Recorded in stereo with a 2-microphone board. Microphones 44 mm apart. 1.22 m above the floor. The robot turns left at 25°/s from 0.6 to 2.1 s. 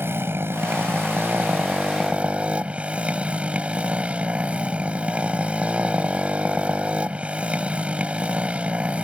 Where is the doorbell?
No doorbell in this recording.